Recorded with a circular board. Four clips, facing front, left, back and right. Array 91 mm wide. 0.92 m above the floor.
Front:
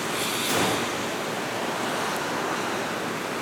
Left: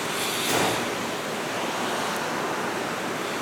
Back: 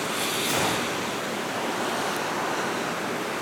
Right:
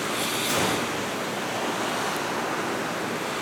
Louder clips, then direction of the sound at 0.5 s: Left 2 dB, front 2 dB; 85° left.